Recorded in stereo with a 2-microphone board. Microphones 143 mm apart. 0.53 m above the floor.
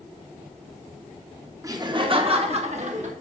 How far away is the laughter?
About 0.8 m.